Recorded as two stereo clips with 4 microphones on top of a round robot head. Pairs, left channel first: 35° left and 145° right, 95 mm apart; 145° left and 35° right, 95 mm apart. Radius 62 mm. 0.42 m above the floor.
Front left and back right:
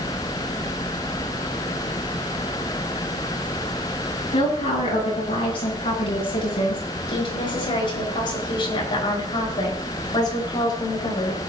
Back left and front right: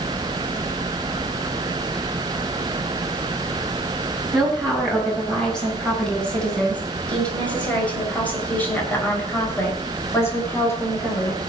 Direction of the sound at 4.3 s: 55° left.